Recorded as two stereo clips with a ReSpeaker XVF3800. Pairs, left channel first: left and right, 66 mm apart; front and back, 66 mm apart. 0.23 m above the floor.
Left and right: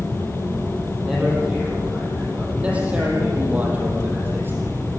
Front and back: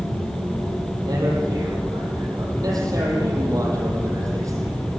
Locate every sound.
1.0 s a man speaking: 175° right, 9.5 m; by 4.8 s 145° right, 8.5 m